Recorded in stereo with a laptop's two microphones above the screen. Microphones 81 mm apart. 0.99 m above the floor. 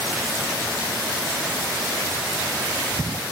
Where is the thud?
No thud in this recording.